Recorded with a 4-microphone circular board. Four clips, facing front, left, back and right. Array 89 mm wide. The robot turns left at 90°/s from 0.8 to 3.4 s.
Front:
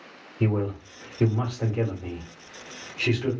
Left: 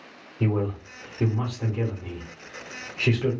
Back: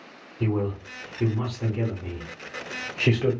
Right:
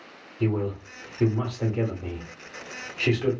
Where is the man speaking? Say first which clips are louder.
Even, even; 35° left, 1.0 m; by 3.3 s 170° left, 1.0 m.